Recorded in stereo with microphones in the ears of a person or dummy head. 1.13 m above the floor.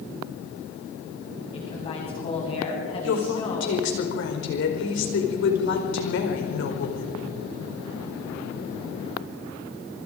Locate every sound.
1.5 s a woman speaking: 30° left (ahead or behind), 9.5 m
3.0 s a woman speaking: 65° left (ahead or behind), 4.5 m